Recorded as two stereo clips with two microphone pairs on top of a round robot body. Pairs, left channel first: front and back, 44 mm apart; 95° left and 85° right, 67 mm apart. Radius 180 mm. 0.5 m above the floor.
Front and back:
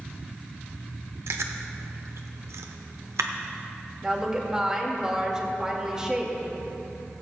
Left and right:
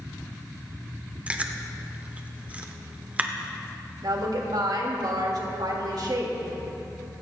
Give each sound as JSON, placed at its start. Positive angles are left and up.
{"t": 1.3, "sound": "chewing", "azimuth_deg": -160, "distance_m": 0.6}
{"t": 4.0, "sound": "a woman speaking", "azimuth_deg": -100, "distance_m": 2.0}